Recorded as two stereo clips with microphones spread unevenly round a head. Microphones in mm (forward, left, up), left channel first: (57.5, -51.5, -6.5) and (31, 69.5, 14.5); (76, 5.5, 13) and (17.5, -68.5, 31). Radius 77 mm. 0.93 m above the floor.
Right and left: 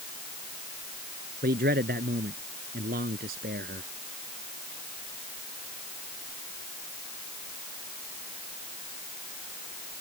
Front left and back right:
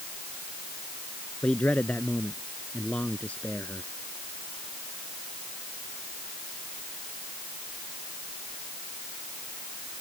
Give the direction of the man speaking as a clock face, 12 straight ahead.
8 o'clock.